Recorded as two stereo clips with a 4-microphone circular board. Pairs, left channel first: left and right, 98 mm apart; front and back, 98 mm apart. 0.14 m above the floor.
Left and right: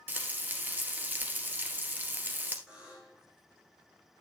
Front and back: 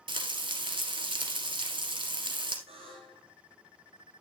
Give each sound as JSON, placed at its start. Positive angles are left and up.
{"t": 0.1, "sound": "frying", "azimuth_deg": -160, "distance_m": 1.8}
{"t": 2.7, "sound": "a buzzer", "azimuth_deg": -170, "distance_m": 5.5}